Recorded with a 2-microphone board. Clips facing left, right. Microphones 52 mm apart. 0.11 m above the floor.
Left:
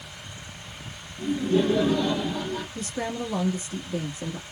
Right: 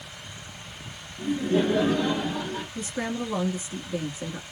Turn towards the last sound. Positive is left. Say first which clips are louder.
# even
turn(degrees=-25)  # may be behind; listen again after turning